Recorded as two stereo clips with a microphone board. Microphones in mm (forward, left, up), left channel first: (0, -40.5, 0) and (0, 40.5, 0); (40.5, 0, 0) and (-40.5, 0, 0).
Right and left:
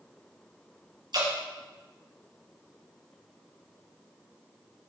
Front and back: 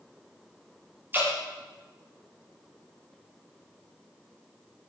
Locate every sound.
1.1 s dripping: 115° left, 5 m